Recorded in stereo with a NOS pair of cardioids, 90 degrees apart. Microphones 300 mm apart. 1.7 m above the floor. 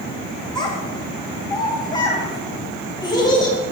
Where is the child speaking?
15° left, 1.6 m.